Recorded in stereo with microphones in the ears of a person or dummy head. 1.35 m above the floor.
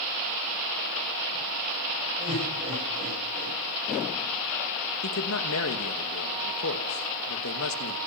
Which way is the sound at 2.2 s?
35° right (ahead or behind).